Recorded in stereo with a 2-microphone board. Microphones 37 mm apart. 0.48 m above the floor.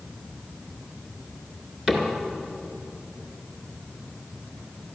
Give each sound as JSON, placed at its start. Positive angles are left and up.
{"t": 1.9, "sound": "a cupboard door", "side_deg": -30, "distance_m": 2.0}